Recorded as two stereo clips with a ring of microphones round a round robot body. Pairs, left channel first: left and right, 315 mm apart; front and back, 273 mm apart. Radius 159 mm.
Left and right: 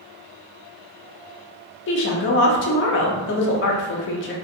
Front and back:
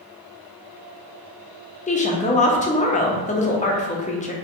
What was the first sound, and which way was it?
A woman speaking, 55° left.